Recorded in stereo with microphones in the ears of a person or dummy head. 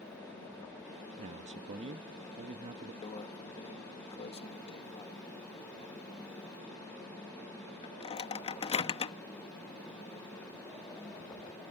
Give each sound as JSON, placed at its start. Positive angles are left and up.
{"t": 1.2, "sound": "a man speaking", "side_deg": -35}
{"t": 3.0, "sound": "a microwave", "side_deg": 30}